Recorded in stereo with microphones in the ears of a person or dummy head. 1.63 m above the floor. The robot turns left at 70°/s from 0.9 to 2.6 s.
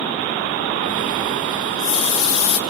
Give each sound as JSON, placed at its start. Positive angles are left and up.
{"t": 1.6, "sound": "a running tap", "azimuth_deg": 145, "distance_m": 1.8}